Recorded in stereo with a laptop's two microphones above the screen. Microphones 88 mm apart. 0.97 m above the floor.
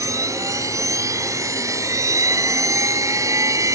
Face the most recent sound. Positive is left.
turn(degrees=-40)  # may be behind; listen again after turning